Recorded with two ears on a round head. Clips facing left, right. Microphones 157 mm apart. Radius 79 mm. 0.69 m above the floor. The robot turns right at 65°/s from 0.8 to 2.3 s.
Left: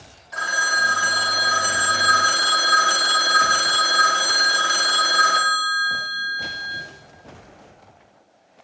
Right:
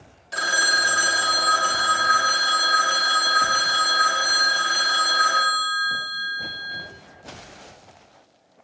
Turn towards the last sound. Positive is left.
turn(degrees=60)